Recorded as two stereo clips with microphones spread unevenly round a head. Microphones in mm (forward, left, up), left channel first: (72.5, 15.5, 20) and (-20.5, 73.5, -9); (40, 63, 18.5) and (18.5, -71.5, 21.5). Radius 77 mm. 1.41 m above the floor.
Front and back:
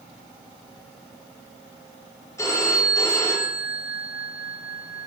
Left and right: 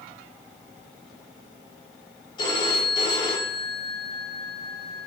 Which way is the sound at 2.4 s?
30° left.